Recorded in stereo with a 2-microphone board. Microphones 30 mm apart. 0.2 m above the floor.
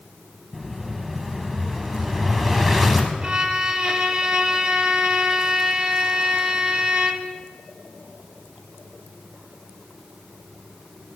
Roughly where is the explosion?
Centre.